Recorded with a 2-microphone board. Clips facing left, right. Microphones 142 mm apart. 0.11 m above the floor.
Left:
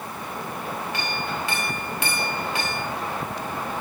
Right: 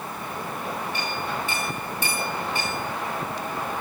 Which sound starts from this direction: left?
A clink, at 0.9 s.